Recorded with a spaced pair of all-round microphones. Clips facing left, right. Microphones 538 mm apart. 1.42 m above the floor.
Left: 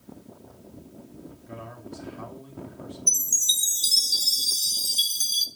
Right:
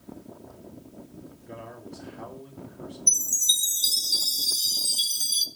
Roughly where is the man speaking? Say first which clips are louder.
Even; left.